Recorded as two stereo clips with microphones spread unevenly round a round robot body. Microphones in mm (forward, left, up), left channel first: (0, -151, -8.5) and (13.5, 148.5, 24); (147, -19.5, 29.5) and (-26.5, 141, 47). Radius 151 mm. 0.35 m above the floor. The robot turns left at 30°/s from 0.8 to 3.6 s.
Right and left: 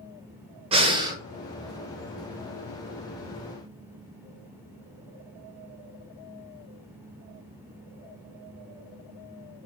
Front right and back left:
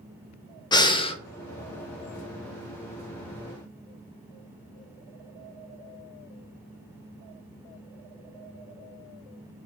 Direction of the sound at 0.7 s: 15° left.